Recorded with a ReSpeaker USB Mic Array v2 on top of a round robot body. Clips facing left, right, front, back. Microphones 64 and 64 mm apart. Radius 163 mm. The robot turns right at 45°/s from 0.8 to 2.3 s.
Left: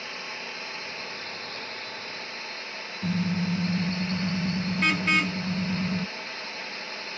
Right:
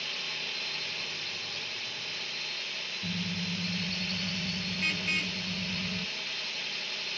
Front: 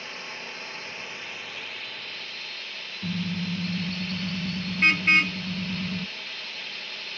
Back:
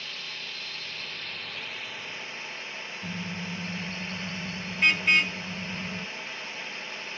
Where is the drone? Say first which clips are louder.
Left 2 dB, front 2 dB; 50° left; by 7.2 s 120° left.